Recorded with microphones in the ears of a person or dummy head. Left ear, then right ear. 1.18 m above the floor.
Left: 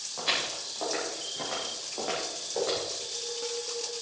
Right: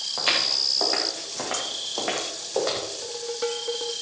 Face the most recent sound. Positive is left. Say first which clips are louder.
# right 5 dB
turn(degrees=-65)  # may be behind; listen again after turning